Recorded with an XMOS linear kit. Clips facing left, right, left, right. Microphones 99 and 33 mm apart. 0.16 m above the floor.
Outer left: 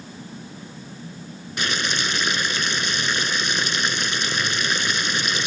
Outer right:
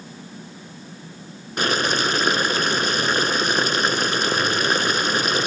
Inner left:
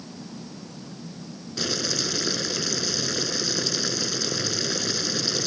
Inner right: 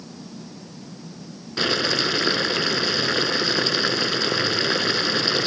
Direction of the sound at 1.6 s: 45° right (ahead or behind).